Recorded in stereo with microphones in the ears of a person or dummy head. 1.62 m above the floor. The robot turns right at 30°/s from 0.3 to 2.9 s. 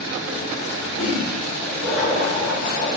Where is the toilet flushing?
155° left, 4.5 m; by 3.0 s 150° right, 4.5 m.